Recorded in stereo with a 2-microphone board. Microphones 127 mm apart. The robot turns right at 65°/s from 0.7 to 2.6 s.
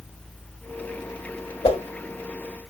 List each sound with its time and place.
1.6 s a whoosh: 50° left (ahead or behind), 1.2 m; by 1.8 s 40° left (ahead or behind), 1.2 m